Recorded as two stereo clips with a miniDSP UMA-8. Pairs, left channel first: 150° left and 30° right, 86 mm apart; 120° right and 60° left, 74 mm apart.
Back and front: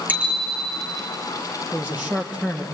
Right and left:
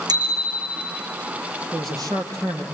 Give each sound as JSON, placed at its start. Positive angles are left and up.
{"t": 0.1, "sound": "a bicycle bell", "azimuth_deg": 40, "distance_m": 4.5}
{"t": 1.7, "sound": "a man speaking", "azimuth_deg": 45, "distance_m": 4.0}